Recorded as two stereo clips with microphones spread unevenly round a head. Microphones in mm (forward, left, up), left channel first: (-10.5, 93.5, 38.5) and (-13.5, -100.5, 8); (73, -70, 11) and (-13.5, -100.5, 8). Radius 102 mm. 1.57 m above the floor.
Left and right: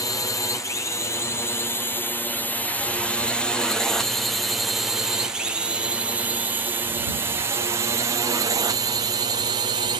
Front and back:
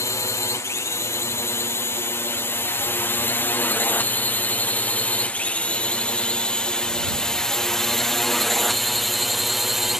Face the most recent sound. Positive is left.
turn(degrees=-75)